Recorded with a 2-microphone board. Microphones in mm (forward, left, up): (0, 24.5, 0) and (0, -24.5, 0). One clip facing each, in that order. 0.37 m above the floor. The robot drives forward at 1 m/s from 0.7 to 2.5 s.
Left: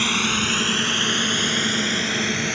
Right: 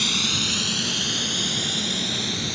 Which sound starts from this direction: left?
A drone, at 0.0 s.